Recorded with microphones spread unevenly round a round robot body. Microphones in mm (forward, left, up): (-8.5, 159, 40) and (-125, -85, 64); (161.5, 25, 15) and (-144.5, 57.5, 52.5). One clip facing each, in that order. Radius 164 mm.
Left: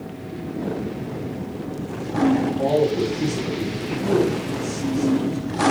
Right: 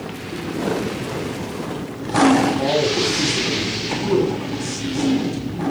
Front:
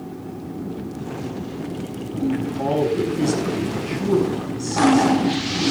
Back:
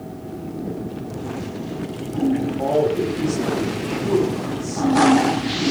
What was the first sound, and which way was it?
A man speaking, 55° right.